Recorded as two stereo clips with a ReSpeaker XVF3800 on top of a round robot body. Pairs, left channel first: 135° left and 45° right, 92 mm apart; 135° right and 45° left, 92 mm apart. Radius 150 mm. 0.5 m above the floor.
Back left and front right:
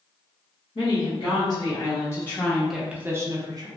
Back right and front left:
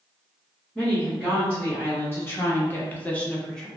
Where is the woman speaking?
155° left, 1.7 m; by 3.7 s 55° right, 1.1 m.